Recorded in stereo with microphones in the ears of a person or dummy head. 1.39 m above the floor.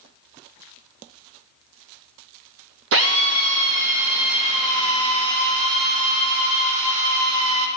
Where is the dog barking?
I don't hear a dog barking.